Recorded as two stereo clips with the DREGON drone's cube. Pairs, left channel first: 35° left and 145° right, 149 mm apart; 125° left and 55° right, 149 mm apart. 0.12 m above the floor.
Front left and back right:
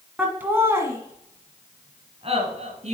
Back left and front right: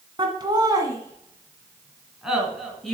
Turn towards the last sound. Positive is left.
turn(degrees=-150)